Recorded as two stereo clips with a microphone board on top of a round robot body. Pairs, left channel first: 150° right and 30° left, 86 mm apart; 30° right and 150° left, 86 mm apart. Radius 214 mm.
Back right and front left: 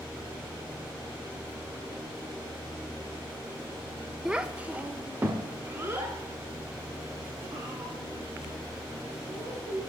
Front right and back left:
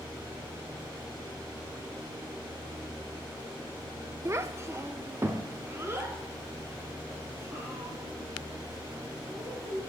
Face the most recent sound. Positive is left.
turn(degrees=85)